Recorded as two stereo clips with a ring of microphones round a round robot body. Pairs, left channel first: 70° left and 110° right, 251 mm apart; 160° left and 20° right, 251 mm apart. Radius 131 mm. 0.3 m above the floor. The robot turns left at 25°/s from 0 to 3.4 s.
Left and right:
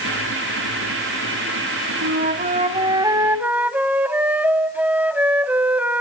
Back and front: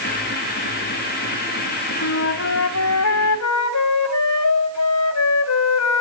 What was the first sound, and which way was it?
A flute, 160° right.